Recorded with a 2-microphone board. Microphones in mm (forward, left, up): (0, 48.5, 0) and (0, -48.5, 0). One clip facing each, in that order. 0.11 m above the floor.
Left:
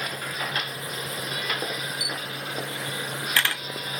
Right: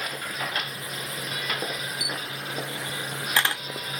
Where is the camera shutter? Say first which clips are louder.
Left 1 dB; 20° right (ahead or behind), 0.5 m.